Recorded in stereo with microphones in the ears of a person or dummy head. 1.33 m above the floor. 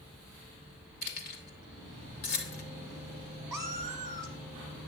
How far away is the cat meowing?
About 1.1 m.